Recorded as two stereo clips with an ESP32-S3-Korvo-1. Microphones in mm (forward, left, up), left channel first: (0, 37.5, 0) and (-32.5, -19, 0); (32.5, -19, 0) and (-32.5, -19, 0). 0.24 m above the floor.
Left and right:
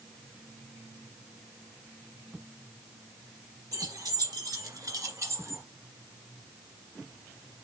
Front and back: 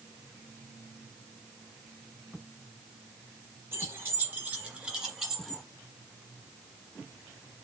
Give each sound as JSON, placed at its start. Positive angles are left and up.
{"t": 3.7, "sound": "keys jangling", "azimuth_deg": -130, "distance_m": 2.5}